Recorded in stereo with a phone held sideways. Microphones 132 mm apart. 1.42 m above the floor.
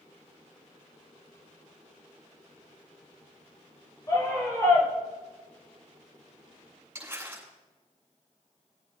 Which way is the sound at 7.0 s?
20° right (ahead or behind).